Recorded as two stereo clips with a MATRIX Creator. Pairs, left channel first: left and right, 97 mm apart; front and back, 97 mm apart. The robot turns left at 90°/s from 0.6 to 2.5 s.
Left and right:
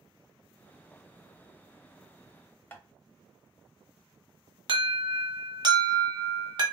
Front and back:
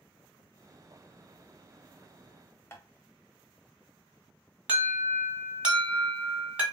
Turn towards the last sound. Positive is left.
turn(degrees=-105)